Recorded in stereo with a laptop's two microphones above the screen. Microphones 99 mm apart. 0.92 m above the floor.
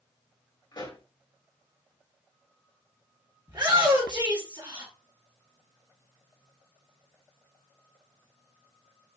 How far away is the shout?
About 1.3 m.